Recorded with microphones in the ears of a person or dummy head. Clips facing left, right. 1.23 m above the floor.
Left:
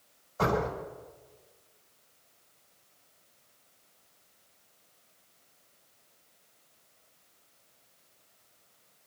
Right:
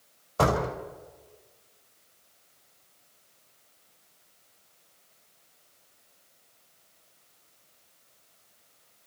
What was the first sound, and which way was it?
A door slam, 80° right.